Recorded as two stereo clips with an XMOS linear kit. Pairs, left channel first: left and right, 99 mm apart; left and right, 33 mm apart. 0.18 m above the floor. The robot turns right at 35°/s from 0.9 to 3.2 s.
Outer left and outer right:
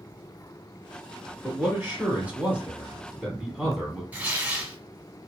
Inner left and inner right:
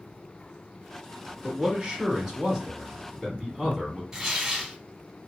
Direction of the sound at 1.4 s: 25° right (ahead or behind).